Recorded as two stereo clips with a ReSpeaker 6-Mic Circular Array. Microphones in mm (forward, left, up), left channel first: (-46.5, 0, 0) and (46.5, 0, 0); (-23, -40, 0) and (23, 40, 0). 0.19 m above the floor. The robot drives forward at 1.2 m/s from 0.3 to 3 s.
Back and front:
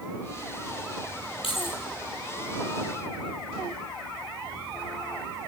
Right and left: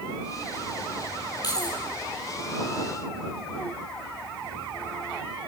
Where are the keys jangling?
165° right, 4 m.